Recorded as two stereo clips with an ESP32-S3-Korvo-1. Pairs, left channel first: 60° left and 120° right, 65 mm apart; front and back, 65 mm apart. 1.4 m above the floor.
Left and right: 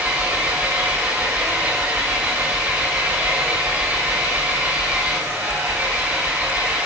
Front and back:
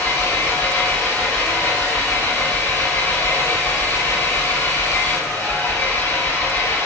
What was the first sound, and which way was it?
An engine running, 55° right.